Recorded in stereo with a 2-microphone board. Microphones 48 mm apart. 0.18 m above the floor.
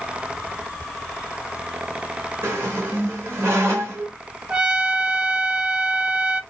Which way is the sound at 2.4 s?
55° right (ahead or behind).